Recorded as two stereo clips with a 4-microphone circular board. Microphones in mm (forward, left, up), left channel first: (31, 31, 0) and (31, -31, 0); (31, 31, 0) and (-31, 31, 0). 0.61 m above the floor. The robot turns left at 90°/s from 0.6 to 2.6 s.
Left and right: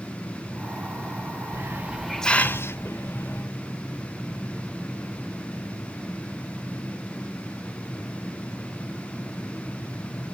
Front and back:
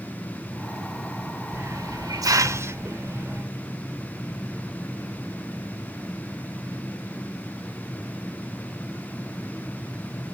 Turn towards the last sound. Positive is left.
turn(degrees=135)